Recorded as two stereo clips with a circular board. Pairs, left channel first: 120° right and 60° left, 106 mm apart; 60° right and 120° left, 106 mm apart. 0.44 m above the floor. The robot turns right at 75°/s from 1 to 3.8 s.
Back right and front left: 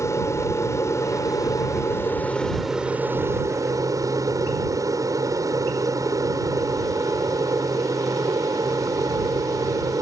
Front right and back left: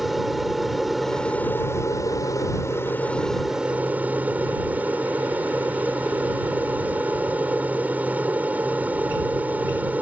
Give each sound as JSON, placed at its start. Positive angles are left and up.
{"t": 0.0, "sound": "an aircraft", "azimuth_deg": -150}